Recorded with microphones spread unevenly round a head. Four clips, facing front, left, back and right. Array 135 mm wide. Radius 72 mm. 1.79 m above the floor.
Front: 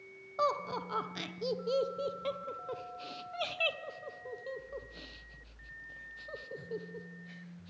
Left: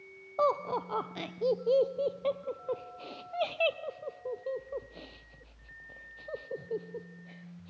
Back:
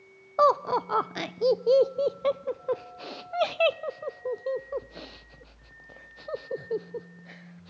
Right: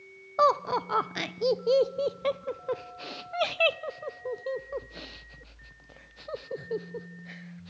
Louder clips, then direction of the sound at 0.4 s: Right 5 dB, back 11 dB; 175° right.